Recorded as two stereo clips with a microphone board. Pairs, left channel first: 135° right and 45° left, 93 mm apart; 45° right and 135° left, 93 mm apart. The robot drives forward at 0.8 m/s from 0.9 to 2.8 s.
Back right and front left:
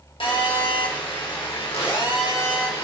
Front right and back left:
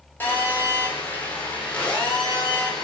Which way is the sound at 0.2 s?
115° right.